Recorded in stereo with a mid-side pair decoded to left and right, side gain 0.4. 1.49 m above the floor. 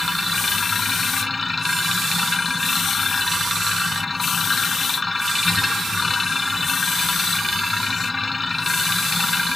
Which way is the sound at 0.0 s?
25° left.